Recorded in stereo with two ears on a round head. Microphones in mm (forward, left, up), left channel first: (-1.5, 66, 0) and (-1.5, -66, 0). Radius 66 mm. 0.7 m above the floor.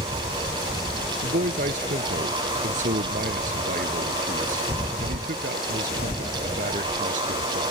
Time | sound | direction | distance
1.2 | a man speaking | 55° right (ahead or behind) | ?